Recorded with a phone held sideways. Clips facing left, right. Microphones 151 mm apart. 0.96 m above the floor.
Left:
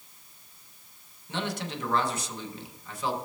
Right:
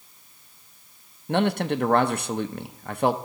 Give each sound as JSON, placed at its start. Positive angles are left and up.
{"t": 1.3, "sound": "a man speaking", "side_deg": -60, "distance_m": 0.6}